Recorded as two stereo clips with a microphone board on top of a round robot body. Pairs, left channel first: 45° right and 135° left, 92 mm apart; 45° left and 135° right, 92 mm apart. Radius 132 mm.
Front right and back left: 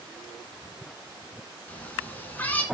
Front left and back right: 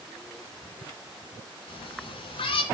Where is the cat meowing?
25° left, 2.5 m.